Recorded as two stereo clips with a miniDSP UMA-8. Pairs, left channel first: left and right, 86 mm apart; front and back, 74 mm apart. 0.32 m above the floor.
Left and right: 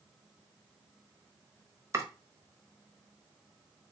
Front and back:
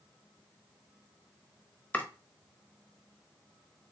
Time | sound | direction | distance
1.9 | chopping | 55° right | 0.9 m